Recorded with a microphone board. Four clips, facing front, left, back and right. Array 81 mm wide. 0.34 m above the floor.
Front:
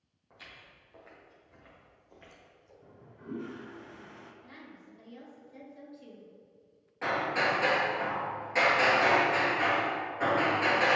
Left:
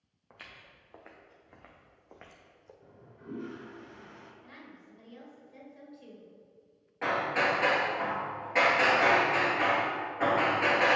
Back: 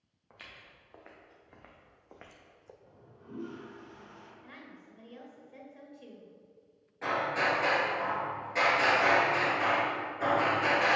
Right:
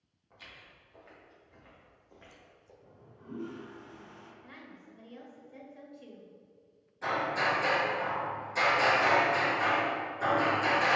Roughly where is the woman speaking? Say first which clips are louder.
Even, even; behind.